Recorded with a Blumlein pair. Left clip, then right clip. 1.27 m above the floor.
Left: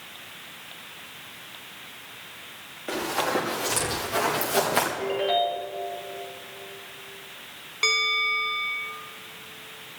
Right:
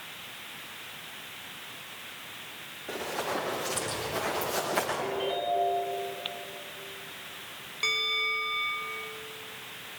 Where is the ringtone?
45° left, 4.5 m.